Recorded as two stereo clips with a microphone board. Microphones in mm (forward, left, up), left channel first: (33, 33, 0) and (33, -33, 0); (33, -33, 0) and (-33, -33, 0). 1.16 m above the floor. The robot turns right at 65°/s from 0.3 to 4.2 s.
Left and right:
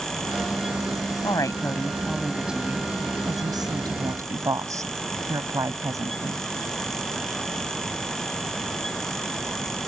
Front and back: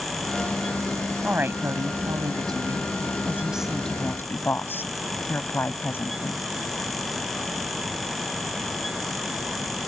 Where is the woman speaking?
110° left; by 6.4 s 55° right.